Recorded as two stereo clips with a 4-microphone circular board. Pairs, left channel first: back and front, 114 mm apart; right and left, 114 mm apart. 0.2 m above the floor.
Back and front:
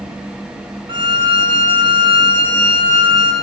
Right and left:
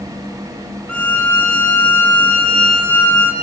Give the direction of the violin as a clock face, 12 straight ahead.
1 o'clock.